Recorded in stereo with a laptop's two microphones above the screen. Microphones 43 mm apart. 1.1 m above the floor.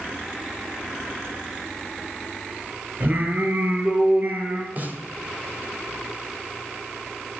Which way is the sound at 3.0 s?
40° right (ahead or behind).